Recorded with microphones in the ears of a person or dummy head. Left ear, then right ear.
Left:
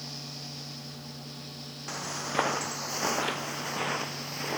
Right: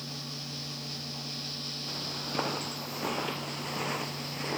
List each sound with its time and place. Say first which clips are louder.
1.9 s footsteps: left 5 dB; 45° left (ahead or behind); by 4.6 s 10° left (ahead or behind)